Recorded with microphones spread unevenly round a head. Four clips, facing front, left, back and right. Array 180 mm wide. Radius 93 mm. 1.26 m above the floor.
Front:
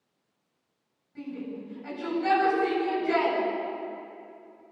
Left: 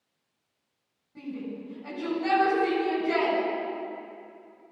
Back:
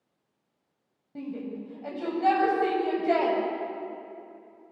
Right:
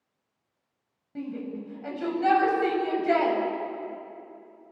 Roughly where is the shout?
Behind right.